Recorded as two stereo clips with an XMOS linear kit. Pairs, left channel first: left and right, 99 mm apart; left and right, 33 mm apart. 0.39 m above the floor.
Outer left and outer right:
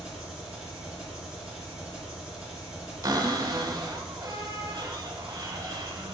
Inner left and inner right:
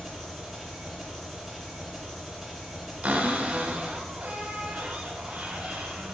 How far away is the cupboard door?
About 0.9 m.